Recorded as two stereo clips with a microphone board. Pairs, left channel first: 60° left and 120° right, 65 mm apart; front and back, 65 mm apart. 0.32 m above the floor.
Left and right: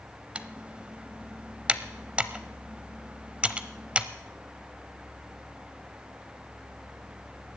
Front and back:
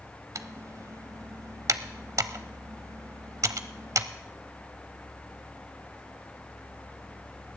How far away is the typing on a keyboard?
About 0.7 m.